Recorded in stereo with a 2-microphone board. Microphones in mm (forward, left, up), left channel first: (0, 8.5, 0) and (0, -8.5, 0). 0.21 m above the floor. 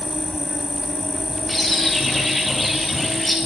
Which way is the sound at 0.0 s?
25° right (ahead or behind).